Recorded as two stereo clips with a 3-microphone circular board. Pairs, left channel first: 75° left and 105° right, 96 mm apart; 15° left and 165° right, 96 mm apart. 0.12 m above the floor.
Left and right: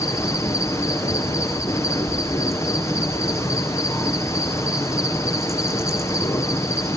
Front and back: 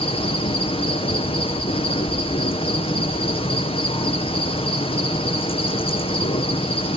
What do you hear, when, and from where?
0.0 s an insect: 15° left, 1.6 m